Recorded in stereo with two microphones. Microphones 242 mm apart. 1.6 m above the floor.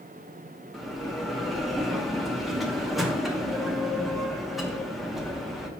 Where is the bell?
Centre (ahead or behind), 0.8 m.